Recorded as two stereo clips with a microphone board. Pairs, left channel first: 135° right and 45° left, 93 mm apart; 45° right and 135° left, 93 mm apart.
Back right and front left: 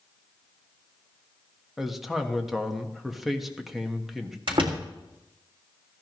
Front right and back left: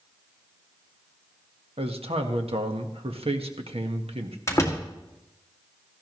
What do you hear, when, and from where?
1.8 s a man speaking: 135° left, 1.4 m
4.5 s a door slam: 15° left, 1.9 m